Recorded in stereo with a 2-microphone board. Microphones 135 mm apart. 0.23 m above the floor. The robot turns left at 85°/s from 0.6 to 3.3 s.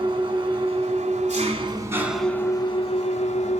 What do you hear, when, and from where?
0.0 s an engine running: 45° right, 1.1 m; by 3.6 s 85° left, 1.1 m